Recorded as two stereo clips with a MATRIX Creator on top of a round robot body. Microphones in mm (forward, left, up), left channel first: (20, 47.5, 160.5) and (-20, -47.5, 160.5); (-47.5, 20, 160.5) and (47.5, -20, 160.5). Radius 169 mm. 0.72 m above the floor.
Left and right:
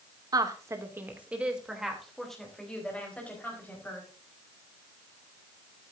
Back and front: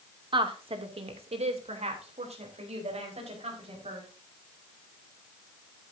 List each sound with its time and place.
0.3 s a woman speaking: 60° right, 2 m; by 4.1 s 5° right, 5 m